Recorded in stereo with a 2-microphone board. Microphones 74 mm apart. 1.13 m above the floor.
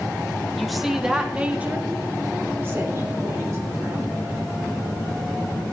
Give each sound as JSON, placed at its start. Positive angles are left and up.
{"t": 0.6, "sound": "a woman speaking", "side_deg": 5, "distance_m": 1.4}